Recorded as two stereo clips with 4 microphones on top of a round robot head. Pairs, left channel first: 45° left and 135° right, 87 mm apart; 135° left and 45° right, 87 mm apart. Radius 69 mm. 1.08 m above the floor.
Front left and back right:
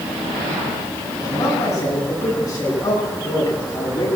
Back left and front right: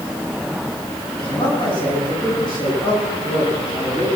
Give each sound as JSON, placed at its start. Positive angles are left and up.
{"t": 1.2, "sound": "a man speaking", "azimuth_deg": 100, "distance_m": 10.0}